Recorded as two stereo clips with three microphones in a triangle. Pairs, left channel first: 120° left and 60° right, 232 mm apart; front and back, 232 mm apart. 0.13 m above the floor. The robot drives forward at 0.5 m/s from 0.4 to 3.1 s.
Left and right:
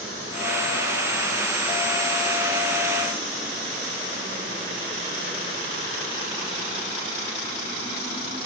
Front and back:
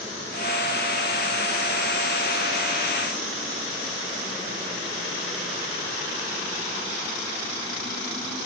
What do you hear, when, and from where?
Only background noise.